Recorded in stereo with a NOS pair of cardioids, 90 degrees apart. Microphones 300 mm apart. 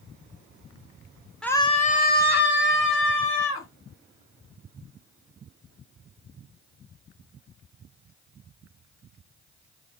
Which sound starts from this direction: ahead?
A scream, at 1.4 s.